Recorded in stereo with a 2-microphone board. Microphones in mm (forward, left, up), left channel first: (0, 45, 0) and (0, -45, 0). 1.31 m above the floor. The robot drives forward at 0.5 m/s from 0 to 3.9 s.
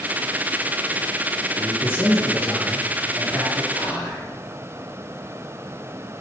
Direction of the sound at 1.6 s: 25° left (ahead or behind).